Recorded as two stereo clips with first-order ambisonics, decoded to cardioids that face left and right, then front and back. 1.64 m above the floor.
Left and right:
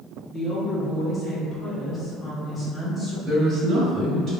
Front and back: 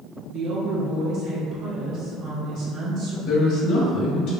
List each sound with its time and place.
0.3 s a woman speaking: 160° left, 0.8 m
3.3 s a woman speaking: 35° right, 1.9 m